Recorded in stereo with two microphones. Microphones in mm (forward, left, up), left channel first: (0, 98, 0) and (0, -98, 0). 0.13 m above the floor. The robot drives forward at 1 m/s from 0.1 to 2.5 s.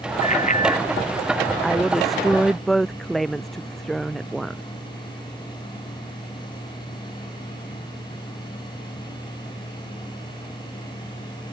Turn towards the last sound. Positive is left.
turn(degrees=0)  # may be behind; listen again after turning